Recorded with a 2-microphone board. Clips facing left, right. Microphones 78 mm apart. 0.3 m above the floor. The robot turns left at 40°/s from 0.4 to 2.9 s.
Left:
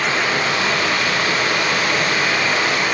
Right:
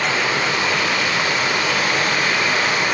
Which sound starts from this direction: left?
Running water, at 0.0 s.